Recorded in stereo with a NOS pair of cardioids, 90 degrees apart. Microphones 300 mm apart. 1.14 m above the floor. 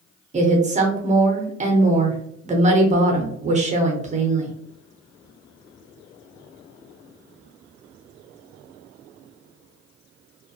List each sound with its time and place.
0.3 s a woman speaking: 25° right, 0.9 m